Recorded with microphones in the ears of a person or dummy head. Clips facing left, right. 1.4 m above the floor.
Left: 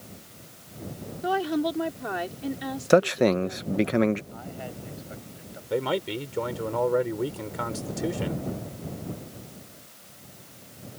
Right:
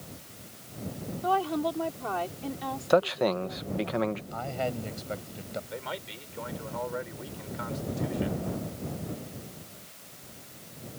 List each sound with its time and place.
1.2 s a woman speaking: 20° left (ahead or behind)
2.9 s a man speaking: 30° left (ahead or behind)
4.3 s a man speaking: 70° right (ahead or behind)
5.7 s a man speaking: 60° left (ahead or behind)